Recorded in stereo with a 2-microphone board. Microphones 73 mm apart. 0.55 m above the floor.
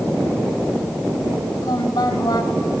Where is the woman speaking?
65° left (ahead or behind), 2.5 m.